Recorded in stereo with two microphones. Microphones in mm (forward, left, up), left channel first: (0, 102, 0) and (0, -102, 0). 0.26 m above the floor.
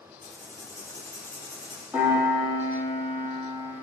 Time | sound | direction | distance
0.2 | writing | 15° left (ahead or behind) | 4 m
1.9 | a piano | 5° right (ahead or behind) | 6 m